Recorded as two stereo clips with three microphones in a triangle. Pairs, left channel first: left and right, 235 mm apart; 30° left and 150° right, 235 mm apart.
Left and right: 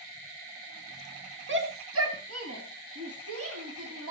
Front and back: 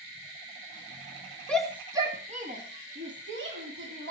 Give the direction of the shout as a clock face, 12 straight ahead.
2 o'clock.